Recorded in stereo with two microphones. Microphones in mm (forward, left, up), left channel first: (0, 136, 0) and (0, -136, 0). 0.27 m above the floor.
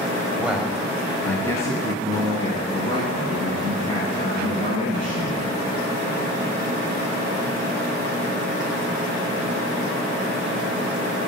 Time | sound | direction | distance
0.4 | a man speaking | 5° right (ahead or behind) | 0.9 m